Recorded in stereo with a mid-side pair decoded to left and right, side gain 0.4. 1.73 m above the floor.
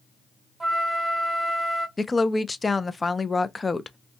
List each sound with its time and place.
0.6 s a flute: 20° right, 0.8 m
2.0 s a woman speaking: 25° left, 0.5 m